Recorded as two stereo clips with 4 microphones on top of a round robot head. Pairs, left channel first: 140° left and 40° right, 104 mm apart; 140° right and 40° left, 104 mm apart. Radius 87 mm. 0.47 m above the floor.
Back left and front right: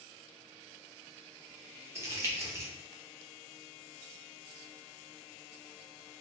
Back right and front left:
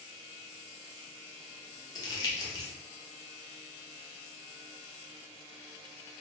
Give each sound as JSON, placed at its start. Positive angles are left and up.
{"t": 1.9, "sound": "crumpling", "azimuth_deg": -100, "distance_m": 0.9}